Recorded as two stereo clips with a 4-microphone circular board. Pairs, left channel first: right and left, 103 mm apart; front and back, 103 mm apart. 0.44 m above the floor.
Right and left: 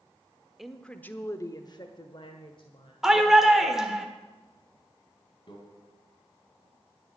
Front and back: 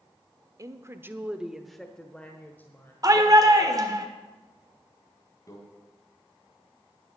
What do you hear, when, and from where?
0.6 s a woman speaking: 175° left, 0.9 m; by 2.9 s 70° right, 1.6 m
3.0 s a shout: 170° left, 1.6 m
5.5 s a microwave: 55° right, 3 m